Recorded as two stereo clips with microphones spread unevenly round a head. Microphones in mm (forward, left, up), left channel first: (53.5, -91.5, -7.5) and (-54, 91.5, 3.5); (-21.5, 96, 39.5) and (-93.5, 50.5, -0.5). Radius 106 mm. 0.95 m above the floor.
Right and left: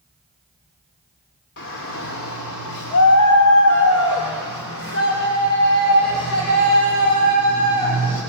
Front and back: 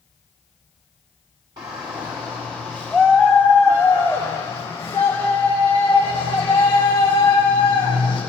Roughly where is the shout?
Right.